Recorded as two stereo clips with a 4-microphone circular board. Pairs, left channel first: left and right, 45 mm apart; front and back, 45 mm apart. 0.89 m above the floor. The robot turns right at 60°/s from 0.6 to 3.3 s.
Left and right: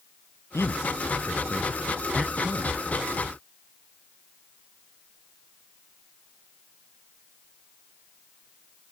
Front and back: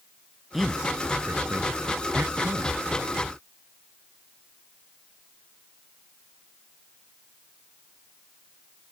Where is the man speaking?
95° left; by 2.8 s 135° right.